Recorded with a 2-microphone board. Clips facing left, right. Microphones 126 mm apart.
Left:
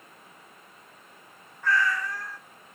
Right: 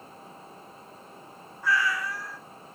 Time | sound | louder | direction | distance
1.6 | a cat meowing | left 1 dB | 10° right (ahead or behind) | 0.5 m